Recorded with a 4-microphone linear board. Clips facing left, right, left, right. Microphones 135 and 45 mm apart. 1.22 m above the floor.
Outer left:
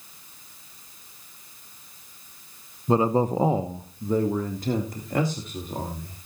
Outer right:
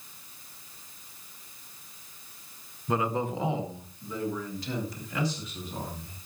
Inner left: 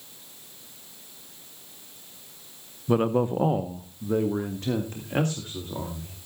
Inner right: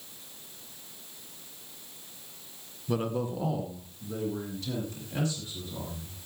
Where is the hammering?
I don't hear hammering.